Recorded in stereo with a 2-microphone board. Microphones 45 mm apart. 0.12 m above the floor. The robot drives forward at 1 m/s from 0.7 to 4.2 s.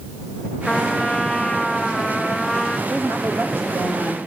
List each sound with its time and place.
0.7 s a trumpet: 5° left (ahead or behind), 2 m
2.9 s a woman speaking: 60° right (ahead or behind), 1.9 m; by 4.2 s 45° right (ahead or behind), 2.5 m